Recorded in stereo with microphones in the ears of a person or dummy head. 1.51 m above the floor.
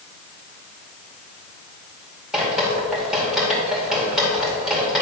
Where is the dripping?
5° right (ahead or behind), 2.5 m.